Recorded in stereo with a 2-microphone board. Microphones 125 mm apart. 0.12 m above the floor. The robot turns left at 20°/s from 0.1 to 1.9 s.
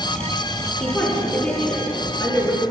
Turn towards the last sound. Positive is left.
turn(degrees=10)  # may be behind; listen again after turning